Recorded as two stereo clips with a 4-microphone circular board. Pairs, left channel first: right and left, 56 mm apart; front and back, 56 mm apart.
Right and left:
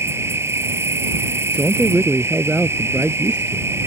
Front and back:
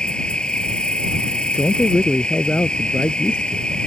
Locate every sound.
0.0 s an insect: 70° left
1.5 s a man speaking: 30° left